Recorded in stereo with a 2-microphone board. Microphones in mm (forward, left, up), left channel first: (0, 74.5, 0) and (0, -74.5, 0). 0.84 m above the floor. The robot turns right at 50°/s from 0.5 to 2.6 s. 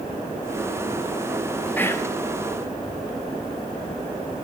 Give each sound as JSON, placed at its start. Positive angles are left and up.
{"t": 1.8, "sound": "whispering", "side_deg": 10, "distance_m": 0.8}